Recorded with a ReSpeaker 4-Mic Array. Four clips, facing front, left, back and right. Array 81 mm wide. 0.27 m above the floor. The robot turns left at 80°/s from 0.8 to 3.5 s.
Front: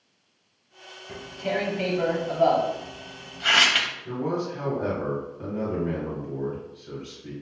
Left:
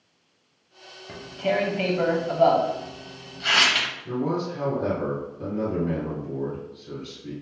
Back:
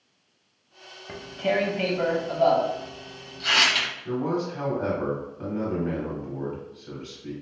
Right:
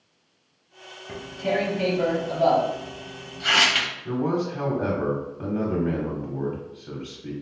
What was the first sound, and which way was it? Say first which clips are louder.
Tearing paper: left 1 dB, back 3 dB; straight behind.